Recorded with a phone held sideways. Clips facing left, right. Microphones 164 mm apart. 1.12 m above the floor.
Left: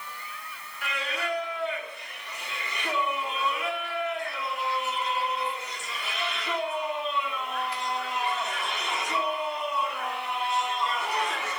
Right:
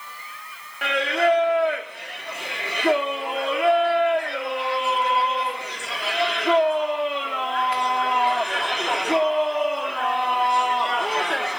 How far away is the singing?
About 1.6 m.